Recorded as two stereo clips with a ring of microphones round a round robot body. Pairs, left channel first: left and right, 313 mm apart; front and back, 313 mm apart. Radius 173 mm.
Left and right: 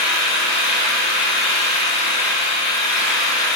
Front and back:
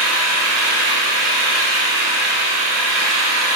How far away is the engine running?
About 2.5 m.